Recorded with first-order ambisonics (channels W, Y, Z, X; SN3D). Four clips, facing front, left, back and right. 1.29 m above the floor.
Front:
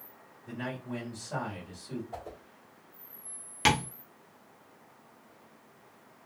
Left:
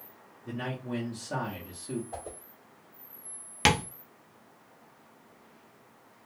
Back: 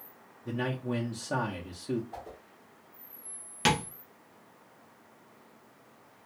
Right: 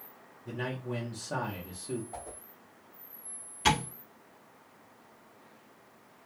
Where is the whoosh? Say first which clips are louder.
Left 3 dB, front 1 dB; 70° left, 0.9 m.